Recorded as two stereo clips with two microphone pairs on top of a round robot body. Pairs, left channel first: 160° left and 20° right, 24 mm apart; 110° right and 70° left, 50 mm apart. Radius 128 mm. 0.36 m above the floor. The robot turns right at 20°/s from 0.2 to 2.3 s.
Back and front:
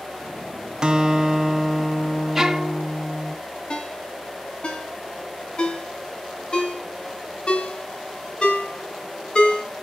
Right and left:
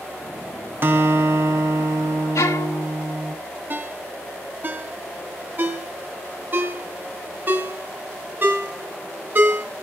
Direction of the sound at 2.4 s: 95° right.